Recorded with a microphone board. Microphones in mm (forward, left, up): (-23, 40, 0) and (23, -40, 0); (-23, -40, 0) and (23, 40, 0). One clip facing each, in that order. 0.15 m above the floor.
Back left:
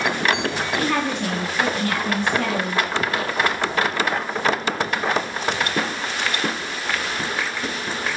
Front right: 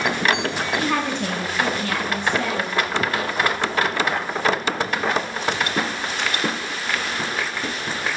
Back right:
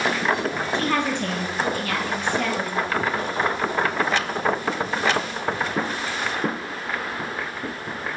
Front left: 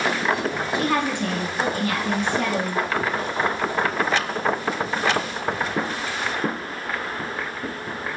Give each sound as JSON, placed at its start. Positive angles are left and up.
{"t": 0.7, "sound": "a woman speaking", "azimuth_deg": -5, "distance_m": 1.1}